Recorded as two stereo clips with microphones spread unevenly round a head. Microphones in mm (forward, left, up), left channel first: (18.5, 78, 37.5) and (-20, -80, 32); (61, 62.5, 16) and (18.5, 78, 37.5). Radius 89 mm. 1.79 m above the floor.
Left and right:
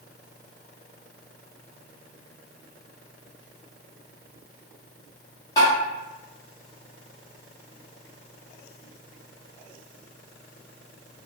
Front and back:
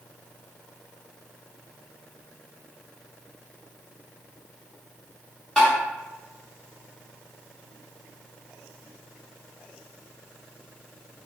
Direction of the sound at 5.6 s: 90° left.